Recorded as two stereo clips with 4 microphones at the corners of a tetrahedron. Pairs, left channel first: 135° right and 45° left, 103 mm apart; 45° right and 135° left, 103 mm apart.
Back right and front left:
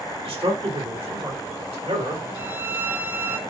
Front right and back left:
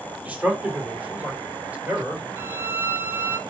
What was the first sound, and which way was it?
A man speaking, 60° left.